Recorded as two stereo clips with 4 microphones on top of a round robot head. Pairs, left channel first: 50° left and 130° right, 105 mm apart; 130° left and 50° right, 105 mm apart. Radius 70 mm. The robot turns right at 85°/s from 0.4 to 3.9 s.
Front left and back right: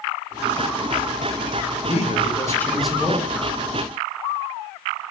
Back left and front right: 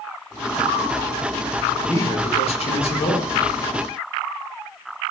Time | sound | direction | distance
1.9 | a man speaking | 60° left | 1.0 m